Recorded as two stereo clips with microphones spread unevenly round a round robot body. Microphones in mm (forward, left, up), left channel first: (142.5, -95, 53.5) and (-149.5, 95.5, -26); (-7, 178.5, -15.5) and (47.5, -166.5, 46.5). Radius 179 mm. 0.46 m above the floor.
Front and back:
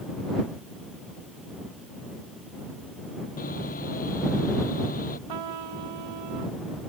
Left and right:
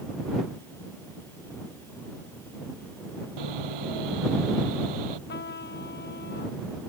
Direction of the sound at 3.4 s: 100° right.